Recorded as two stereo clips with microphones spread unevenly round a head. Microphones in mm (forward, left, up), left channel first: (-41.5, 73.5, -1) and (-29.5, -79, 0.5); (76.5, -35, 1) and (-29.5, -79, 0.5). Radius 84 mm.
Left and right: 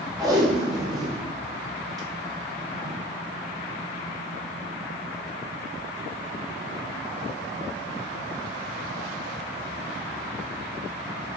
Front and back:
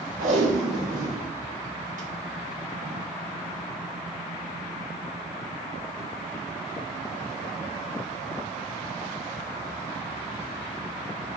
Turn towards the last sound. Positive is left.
turn(degrees=-155)